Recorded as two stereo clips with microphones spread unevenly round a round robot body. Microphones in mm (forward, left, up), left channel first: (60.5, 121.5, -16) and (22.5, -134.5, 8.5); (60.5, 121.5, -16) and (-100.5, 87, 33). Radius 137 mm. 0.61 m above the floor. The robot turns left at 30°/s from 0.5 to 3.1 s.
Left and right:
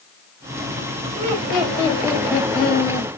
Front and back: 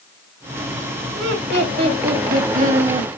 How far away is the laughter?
About 3 m.